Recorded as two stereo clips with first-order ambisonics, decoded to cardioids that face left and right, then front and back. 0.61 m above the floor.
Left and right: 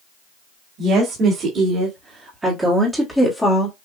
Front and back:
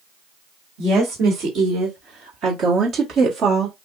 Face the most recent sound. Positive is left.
turn(degrees=140)